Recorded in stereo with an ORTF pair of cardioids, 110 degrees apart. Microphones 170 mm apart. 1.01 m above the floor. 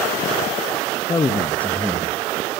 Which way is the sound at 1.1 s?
20° left.